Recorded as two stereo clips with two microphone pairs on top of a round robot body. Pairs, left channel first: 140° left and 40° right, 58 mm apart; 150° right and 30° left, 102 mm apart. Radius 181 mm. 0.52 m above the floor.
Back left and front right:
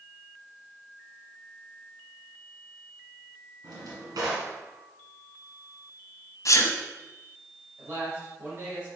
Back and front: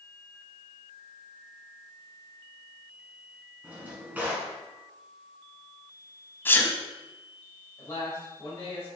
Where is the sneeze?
145° left, 1.3 m.